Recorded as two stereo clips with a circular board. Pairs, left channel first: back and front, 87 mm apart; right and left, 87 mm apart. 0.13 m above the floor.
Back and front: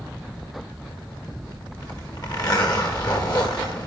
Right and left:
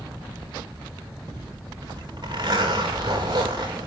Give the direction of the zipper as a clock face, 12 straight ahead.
7 o'clock.